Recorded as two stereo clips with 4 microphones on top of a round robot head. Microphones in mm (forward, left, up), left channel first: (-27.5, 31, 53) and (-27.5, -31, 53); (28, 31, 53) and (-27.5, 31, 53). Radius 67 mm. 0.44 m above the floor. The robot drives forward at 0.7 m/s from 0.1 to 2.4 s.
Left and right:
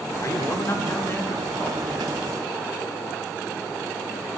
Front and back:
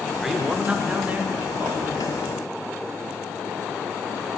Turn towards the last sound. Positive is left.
turn(degrees=150)